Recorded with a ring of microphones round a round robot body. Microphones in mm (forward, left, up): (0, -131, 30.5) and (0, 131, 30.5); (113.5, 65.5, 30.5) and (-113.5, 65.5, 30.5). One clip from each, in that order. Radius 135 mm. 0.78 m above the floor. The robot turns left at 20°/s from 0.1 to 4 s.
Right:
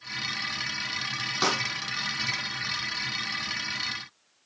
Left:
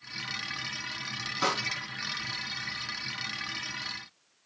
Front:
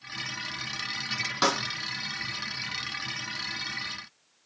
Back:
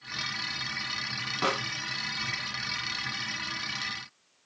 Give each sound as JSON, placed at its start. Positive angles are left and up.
{"t": 1.4, "sound": "a snare drum", "azimuth_deg": -30, "distance_m": 9.0}